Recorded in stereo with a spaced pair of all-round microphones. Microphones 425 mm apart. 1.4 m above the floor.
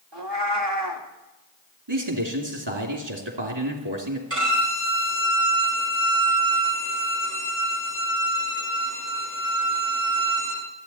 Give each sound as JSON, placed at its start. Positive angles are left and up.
{"t": 0.1, "sound": "a cat meowing", "side_deg": -70, "distance_m": 2.0}
{"t": 1.9, "sound": "a man speaking", "side_deg": -80, "distance_m": 2.5}
{"t": 4.3, "sound": "a violin", "side_deg": -30, "distance_m": 9.5}